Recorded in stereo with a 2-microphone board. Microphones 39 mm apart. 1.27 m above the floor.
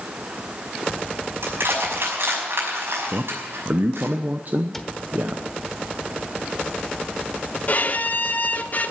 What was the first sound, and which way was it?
Crushing, 75° right (ahead or behind).